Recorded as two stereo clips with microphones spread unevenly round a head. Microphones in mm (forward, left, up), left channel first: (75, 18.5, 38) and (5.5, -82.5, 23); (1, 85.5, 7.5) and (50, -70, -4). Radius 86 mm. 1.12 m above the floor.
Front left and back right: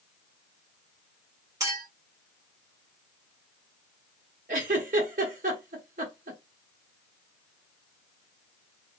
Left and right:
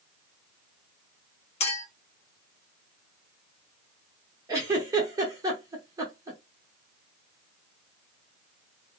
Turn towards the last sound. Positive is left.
turn(degrees=-140)